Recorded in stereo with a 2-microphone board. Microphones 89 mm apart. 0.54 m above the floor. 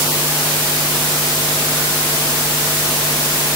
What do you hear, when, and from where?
Only background noise.